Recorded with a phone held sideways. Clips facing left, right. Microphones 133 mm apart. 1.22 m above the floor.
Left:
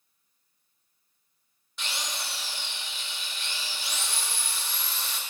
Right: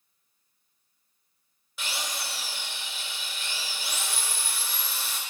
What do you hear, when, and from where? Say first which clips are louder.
1.8 s a drill: right 1 dB; 5° right (ahead or behind), 2 m